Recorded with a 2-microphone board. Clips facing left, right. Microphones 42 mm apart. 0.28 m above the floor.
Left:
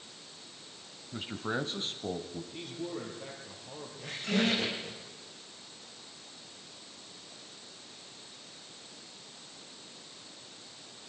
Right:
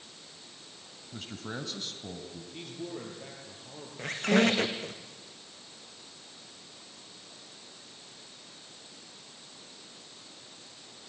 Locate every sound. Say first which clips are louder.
1.1 s a man speaking: left 5 dB; 15° left (ahead or behind), 1.3 m; by 2.4 s 40° left (ahead or behind), 1.7 m
2.5 s a man speaking: even; centre (ahead or behind), 7 m
4.0 s a squeak: right 6 dB; 55° right (ahead or behind), 3 m